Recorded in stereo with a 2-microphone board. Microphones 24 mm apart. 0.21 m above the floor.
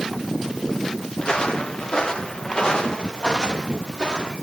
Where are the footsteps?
45° left (ahead or behind), 2.5 m; by 4.3 s 40° left (ahead or behind), 4 m.